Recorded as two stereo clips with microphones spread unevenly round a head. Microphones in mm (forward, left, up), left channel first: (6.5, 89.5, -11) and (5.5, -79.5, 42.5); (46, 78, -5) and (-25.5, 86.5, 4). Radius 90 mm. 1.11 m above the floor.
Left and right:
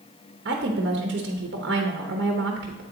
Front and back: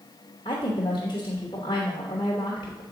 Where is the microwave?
I don't hear a microwave.